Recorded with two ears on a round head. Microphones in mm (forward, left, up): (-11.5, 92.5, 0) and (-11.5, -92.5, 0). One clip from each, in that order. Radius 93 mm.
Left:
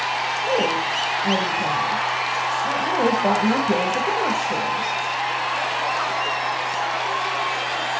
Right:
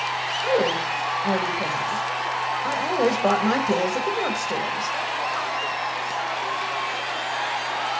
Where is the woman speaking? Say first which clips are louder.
Even; 65° right (ahead or behind), 1.8 m.